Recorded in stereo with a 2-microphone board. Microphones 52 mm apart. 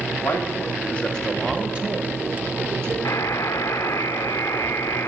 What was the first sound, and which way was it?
A man speaking, 50° left (ahead or behind).